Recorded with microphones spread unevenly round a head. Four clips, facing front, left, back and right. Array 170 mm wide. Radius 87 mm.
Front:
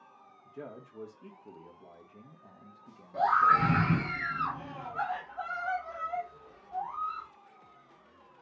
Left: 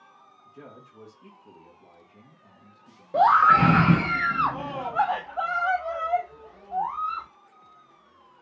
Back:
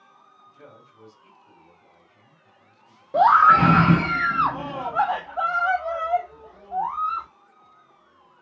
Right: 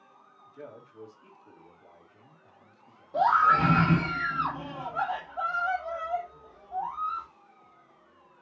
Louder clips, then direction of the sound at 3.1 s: Left 5 dB, back 10 dB; 150° left.